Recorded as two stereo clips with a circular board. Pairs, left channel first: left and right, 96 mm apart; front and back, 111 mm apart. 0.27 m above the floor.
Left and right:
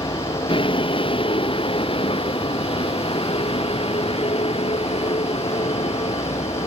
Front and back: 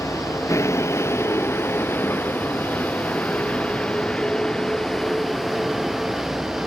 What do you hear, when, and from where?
0.0 s a vehicle: 65° left; by 6.7 s 95° left